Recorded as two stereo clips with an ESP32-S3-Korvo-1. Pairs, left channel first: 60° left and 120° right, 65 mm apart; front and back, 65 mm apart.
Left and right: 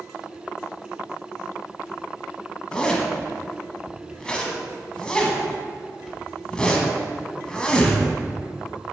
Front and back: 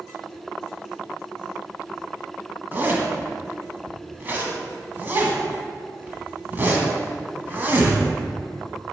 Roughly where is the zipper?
Behind left.